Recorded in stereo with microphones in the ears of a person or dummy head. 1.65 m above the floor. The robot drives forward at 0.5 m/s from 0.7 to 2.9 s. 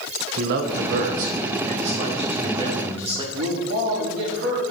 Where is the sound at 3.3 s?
70° right (ahead or behind), 3 m.